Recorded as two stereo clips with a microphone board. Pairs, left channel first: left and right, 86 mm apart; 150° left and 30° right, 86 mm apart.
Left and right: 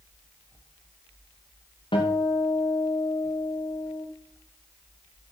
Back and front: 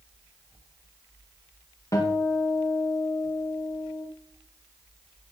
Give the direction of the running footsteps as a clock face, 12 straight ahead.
No running footsteps in this recording.